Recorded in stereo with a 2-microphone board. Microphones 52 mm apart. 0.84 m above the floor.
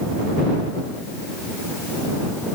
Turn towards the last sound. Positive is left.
No sound to turn to.